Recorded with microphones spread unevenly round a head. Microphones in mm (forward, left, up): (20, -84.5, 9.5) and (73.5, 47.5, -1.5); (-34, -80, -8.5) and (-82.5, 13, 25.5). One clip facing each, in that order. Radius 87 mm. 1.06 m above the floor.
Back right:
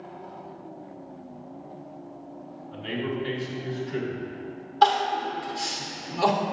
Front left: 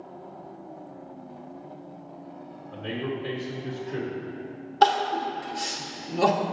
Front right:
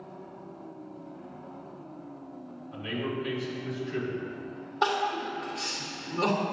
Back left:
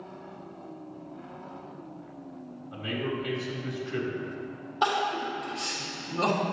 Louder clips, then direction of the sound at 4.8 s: Even, back left 1 dB; 35° left.